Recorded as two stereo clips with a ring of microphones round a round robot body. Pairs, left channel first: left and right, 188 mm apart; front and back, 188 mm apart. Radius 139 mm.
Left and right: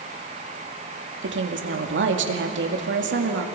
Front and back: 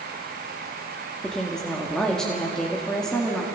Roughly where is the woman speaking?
Right.